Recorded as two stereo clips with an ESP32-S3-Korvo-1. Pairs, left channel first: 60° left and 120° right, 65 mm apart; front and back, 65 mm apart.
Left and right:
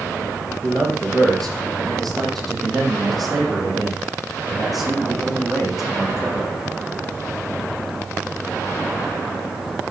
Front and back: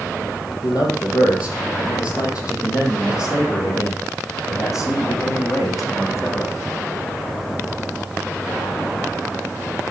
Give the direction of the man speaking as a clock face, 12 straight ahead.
1 o'clock.